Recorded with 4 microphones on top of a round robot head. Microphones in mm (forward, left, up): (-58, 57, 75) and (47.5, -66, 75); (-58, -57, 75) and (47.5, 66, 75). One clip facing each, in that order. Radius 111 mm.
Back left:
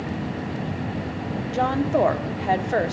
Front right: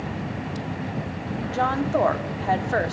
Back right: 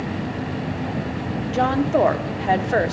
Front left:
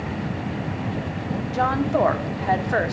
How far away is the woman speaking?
About 1.0 m.